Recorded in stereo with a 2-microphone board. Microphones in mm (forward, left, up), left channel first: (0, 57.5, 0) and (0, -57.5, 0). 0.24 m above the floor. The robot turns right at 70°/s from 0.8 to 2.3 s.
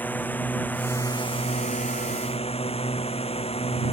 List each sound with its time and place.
0.0 s a drone: 15° left; by 3.9 s 120° left